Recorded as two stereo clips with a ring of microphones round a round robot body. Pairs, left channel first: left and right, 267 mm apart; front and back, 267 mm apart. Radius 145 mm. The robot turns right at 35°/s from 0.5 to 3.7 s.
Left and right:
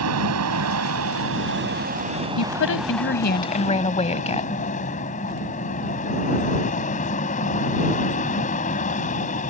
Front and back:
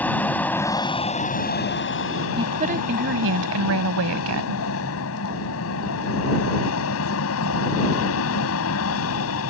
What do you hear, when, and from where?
0.0 s an aircraft: 85° right; by 9.5 s 30° left
2.4 s a woman speaking: 105° left; by 4.6 s 155° left